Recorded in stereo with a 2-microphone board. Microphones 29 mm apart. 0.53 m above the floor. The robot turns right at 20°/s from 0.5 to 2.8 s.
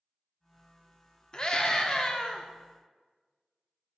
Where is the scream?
35° left (ahead or behind), 0.9 m; by 2.5 s 30° left (ahead or behind), 0.9 m.